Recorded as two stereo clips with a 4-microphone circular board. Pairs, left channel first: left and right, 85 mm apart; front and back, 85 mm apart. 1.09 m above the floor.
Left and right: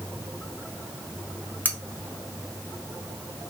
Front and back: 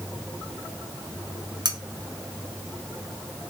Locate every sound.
1.6 s cutlery clinking: 160° left, 0.7 m